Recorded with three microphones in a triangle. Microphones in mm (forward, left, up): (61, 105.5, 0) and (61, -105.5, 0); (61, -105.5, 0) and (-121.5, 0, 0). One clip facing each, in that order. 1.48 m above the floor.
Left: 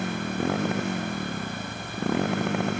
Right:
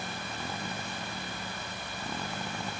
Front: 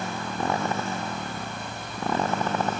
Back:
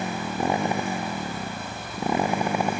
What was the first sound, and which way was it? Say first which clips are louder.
A motorcycle: left 12 dB, back 3 dB; 75° left.